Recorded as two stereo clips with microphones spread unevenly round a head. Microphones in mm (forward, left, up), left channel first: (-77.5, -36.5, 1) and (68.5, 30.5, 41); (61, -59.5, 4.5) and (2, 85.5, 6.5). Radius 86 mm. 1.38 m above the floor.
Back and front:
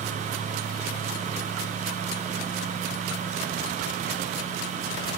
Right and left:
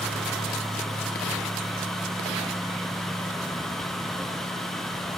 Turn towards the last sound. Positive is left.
No sound to turn to.